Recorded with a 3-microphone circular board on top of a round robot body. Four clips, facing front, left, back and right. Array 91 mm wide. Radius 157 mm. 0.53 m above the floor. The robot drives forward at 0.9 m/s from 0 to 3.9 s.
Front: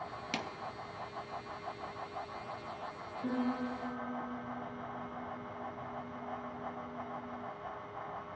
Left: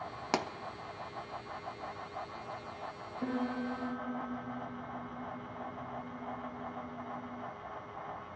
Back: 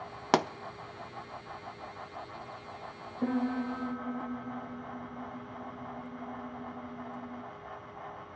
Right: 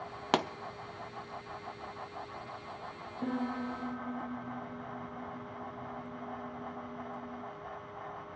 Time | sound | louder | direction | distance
0.3 | a pop | right 4 dB, back 15 dB | 170° right | 0.6 m
3.2 | a piano | even, back 4 dB | straight behind | 4.5 m